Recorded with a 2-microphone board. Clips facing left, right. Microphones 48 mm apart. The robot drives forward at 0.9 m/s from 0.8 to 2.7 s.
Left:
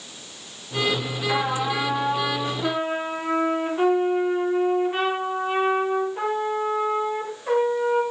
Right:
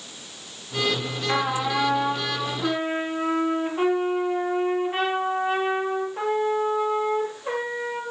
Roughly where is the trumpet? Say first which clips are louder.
Even; centre.